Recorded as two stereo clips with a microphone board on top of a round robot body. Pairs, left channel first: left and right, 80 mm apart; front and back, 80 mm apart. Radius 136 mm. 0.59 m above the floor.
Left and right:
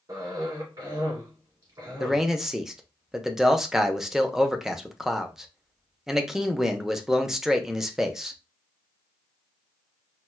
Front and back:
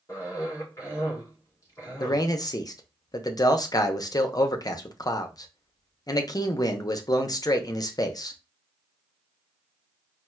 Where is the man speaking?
5° right, 0.8 m.